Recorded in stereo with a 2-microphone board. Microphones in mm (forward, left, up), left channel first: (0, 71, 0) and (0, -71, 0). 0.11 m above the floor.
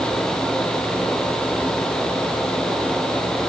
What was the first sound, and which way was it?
Only background noise.